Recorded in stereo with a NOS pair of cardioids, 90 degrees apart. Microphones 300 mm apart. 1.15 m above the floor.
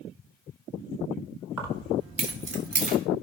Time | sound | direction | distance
1.6 | keys jangling | 55° right | 2 m